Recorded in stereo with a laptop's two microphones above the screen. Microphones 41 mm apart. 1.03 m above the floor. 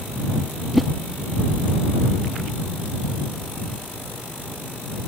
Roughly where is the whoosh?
Centre.